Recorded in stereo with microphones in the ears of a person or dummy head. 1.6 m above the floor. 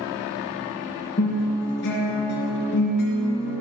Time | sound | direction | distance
1.2 | a guitar | 60° left (ahead or behind) | 4.5 m